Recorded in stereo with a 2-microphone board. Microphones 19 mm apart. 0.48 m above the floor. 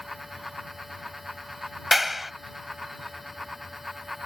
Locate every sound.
1.9 s a clap: 10° right (ahead or behind)